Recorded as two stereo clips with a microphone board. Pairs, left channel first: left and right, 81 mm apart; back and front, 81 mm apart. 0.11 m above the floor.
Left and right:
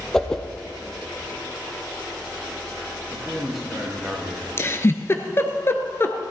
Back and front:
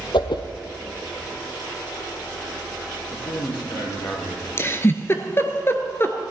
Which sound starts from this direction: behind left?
A giggle, at 4.6 s.